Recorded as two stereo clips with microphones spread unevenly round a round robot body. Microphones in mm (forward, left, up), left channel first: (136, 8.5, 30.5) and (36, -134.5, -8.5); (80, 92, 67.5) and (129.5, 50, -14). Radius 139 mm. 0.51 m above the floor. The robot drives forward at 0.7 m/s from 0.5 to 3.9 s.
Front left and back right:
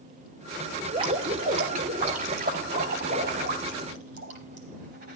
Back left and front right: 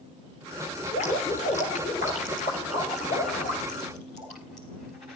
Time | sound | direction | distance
0.9 | dripping | 175° right | 1.9 m